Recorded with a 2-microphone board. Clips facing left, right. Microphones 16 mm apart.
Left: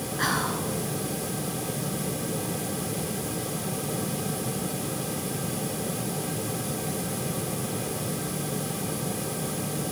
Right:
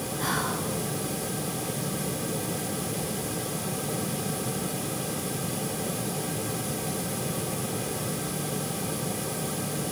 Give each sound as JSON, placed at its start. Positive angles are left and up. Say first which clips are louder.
{"t": 0.2, "sound": "whispering", "louder": "left 3 dB", "side_deg": 50, "distance_m": 2.5}